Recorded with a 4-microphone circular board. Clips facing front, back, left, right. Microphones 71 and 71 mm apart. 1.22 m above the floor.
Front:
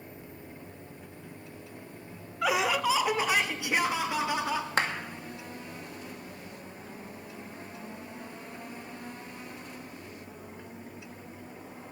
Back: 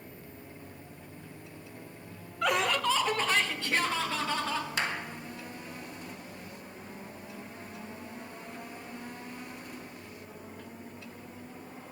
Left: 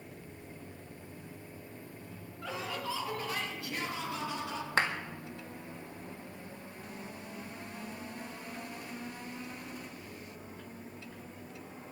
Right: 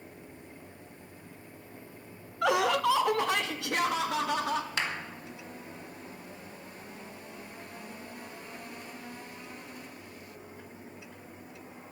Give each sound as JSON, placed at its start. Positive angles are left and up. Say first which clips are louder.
{"t": 2.4, "sound": "laughter", "louder": "front 1 dB, right 13 dB", "azimuth_deg": -85, "distance_m": 0.6}
{"t": 4.8, "sound": "a clap", "louder": "front 5 dB, left 3 dB", "azimuth_deg": 40, "distance_m": 2.0}